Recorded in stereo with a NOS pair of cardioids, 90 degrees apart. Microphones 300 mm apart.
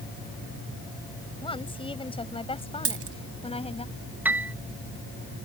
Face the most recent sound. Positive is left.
turn(degrees=-5)